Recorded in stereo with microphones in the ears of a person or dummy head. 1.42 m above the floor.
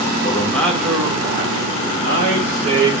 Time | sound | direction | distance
0.2 | a man speaking | 25° left (ahead or behind) | 0.6 m